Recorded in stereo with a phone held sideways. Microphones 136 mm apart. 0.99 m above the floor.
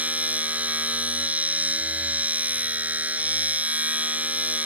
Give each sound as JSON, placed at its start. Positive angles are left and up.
{"t": 0.0, "sound": "a machine running", "side_deg": -10}